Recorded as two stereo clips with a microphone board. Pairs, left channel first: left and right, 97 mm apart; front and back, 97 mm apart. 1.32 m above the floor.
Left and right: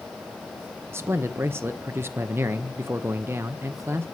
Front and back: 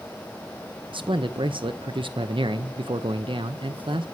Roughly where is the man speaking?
Behind right.